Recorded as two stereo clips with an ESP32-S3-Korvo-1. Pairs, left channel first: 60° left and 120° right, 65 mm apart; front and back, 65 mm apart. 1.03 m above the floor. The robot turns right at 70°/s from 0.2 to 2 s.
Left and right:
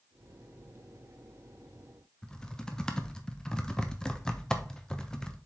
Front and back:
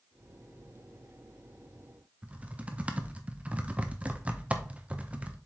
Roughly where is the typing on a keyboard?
Behind left.